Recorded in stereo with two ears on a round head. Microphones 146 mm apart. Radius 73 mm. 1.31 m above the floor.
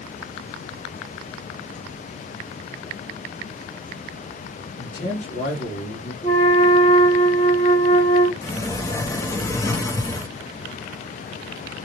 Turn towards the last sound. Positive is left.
turn(degrees=20)  # may be behind; listen again after turning